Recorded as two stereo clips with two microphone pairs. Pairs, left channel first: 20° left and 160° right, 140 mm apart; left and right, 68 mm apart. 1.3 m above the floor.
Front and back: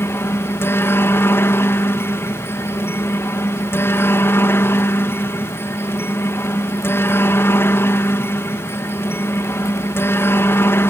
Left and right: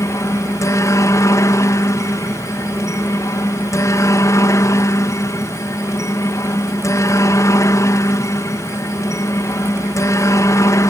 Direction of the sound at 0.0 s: 85° left.